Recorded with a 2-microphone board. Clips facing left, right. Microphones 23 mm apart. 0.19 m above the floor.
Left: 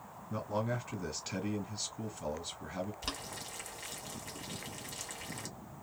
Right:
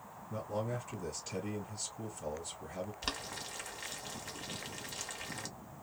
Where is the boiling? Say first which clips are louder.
Right 1 dB; 20° right (ahead or behind), 1.3 m.